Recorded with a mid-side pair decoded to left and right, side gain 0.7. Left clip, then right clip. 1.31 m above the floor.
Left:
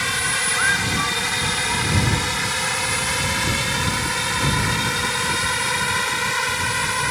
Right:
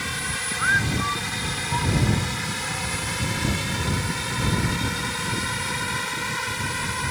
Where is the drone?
30° left.